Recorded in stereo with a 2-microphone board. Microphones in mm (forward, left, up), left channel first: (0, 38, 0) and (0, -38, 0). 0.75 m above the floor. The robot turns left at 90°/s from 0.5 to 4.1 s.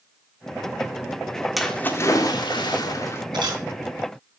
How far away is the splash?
About 1.7 m.